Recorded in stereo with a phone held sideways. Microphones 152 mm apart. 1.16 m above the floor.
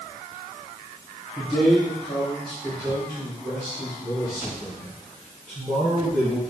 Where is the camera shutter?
No camera shutter in this recording.